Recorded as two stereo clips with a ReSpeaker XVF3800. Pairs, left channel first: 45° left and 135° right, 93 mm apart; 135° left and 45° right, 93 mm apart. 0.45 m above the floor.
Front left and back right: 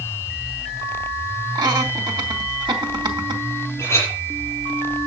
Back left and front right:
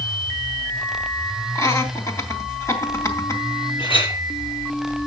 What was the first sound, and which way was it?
Laughter, 170° right.